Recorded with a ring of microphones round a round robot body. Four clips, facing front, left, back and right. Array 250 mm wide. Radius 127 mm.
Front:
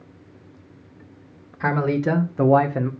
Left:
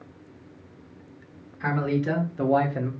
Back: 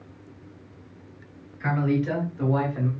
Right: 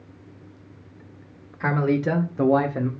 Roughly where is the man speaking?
Ahead right.